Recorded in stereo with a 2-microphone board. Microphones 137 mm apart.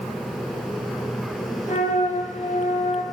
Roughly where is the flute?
Left.